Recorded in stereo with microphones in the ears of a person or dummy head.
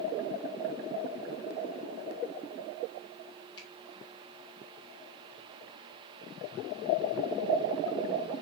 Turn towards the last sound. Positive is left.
turn(degrees=25)  # may be behind; listen again after turning